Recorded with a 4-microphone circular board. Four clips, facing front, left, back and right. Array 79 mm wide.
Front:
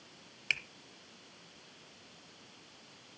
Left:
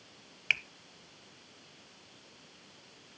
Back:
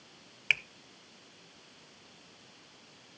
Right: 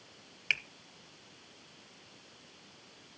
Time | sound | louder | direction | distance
0.5 | a finger snap | left 2 dB, back 5 dB | 155° left | 0.8 m